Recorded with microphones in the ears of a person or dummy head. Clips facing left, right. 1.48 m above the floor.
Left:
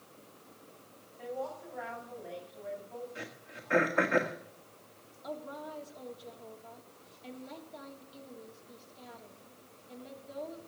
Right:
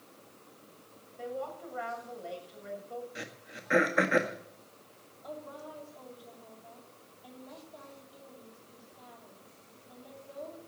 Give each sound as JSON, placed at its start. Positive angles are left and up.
{"t": 1.2, "sound": "a woman speaking", "side_deg": -75, "distance_m": 7.0}
{"t": 3.1, "sound": "throat clearing", "side_deg": -20, "distance_m": 1.6}
{"t": 5.2, "sound": "a woman speaking", "side_deg": 30, "distance_m": 3.0}